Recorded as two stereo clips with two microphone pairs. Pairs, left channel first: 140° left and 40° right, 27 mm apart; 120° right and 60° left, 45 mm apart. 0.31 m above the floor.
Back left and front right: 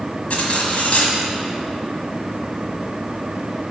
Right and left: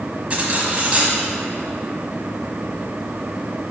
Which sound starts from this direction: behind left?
Cutlery clinking, at 0.3 s.